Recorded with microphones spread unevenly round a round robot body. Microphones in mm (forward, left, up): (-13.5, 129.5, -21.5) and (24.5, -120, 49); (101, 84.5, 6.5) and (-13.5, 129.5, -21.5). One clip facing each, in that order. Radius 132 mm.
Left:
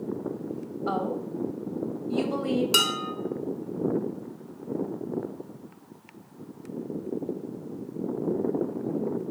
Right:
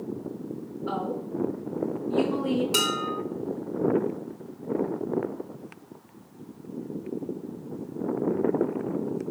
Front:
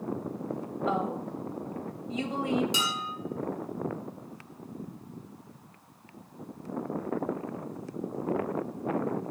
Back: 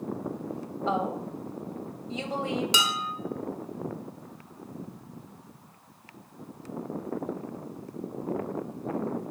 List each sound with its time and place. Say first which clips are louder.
0.9 s a woman speaking: left 1 dB, back 2 dB; 105° left, 3 m
2.7 s dishes clattering: right 2 dB, back 3 dB; 160° left, 1.4 m